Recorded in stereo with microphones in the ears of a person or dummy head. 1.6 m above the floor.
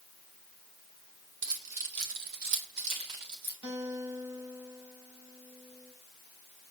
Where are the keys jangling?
70° right (ahead or behind), 2.5 m; by 3.5 s 60° right (ahead or behind), 4 m.